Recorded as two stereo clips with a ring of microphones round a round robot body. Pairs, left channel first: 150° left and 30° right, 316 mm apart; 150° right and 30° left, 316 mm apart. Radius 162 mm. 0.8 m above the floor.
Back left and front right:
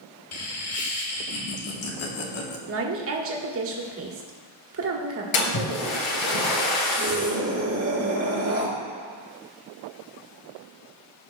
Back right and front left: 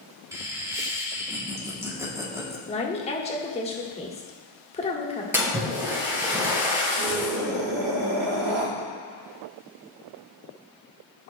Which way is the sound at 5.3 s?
115° left.